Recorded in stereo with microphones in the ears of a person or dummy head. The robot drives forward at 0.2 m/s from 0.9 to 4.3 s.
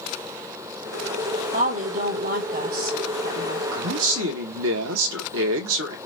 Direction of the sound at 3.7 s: 75° right (ahead or behind).